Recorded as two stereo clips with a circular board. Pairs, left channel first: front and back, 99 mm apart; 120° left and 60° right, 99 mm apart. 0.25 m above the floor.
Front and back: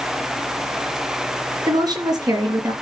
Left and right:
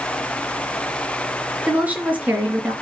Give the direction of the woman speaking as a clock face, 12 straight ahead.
4 o'clock.